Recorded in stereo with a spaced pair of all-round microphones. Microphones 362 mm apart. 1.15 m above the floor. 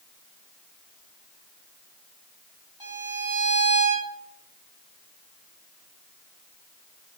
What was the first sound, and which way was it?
A violin, 85° left.